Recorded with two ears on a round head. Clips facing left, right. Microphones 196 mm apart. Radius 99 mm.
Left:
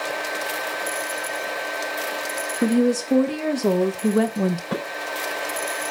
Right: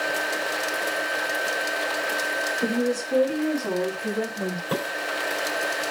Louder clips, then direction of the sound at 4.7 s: Even; 25° right (ahead or behind).